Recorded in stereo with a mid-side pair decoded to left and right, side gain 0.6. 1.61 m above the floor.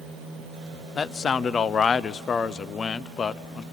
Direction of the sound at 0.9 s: 35° left.